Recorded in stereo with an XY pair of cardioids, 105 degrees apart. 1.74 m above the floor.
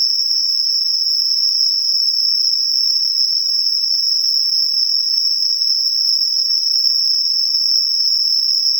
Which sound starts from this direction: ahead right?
An insect, at 0.0 s.